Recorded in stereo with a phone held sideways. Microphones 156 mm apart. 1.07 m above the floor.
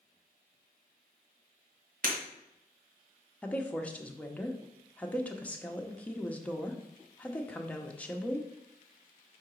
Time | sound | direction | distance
2.0 | breaking glass | 65° right (ahead or behind) | 2 m
3.4 | a woman speaking | 10° left (ahead or behind) | 0.8 m